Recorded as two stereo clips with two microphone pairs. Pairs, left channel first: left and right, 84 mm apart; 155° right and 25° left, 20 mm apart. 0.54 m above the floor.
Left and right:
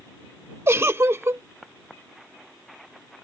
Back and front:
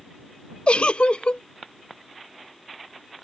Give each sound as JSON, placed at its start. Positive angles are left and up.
{"t": 0.7, "sound": "a giggle", "azimuth_deg": -150}